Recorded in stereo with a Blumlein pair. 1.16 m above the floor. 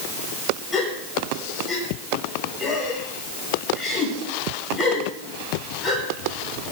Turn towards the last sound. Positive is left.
turn(degrees=20)